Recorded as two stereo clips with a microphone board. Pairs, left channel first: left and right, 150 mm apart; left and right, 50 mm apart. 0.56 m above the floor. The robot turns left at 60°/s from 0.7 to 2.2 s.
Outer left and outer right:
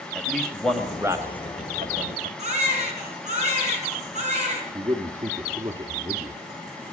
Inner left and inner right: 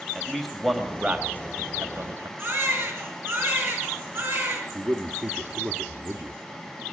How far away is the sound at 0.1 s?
About 2.5 m.